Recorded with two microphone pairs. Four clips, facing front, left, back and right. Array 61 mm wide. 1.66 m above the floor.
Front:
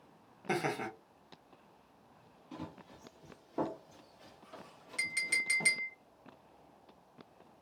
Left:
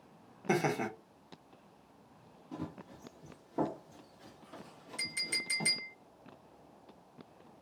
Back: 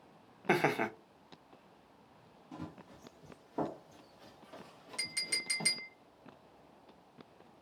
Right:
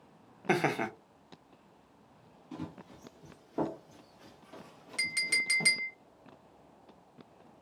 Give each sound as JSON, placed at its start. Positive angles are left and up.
{"t": 0.5, "sound": "laughter", "azimuth_deg": -145, "distance_m": 0.6}
{"t": 2.5, "sound": "running footsteps", "azimuth_deg": -60, "distance_m": 2.0}
{"t": 5.0, "sound": "a clink", "azimuth_deg": -85, "distance_m": 1.8}